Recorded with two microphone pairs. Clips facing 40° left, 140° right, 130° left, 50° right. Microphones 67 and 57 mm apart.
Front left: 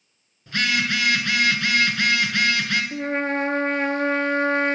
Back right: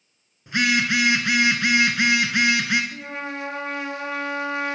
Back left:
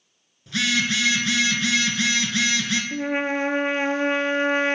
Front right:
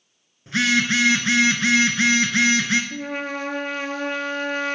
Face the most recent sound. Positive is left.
turn(degrees=75)